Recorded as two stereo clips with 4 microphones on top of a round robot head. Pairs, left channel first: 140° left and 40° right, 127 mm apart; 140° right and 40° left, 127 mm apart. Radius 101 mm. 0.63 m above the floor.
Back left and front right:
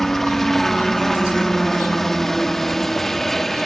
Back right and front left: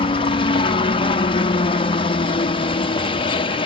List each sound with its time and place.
0.0 s a helicopter: 135° right